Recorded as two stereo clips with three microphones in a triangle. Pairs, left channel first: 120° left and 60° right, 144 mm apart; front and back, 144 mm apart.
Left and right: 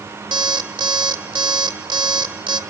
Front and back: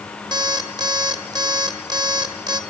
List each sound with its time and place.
0.3 s an alarm clock: 120° right, 1.2 m